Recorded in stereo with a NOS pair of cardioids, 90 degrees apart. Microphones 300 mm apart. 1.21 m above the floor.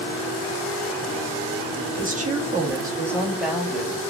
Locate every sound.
2.0 s a woman speaking: 30° right, 1.6 m; by 4.0 s 5° left, 2.5 m